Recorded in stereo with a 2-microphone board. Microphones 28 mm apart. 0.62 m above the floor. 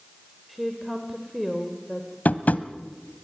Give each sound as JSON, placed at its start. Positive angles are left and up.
{"t": 0.5, "sound": "a woman speaking", "side_deg": -5, "distance_m": 2.0}
{"t": 2.2, "sound": "tapping", "side_deg": 70, "distance_m": 1.0}